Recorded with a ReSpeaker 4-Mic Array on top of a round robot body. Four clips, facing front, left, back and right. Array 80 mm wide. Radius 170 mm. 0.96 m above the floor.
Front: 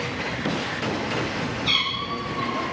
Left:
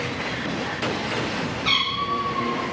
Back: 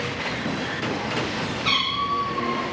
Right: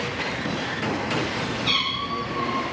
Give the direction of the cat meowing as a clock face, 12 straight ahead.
8 o'clock.